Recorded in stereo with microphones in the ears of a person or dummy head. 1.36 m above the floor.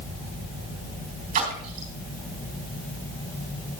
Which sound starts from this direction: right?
A splash, at 1.3 s.